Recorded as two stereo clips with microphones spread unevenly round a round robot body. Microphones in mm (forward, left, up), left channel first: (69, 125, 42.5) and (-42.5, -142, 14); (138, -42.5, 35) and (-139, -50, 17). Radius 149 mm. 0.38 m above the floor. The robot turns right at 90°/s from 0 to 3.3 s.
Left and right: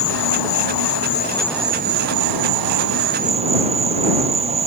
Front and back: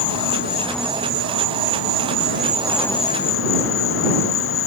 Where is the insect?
20° left; by 4.7 s 45° right.